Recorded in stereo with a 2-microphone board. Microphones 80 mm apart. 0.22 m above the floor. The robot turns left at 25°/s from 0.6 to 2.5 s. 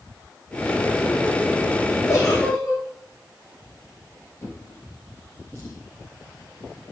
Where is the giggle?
40° left (ahead or behind), 6 m; by 2.8 s 50° left (ahead or behind), 6 m.